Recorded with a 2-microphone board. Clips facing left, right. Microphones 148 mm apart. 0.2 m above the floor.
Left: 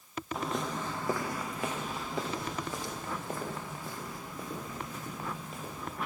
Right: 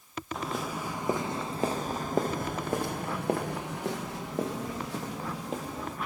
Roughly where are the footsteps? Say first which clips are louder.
Even; centre.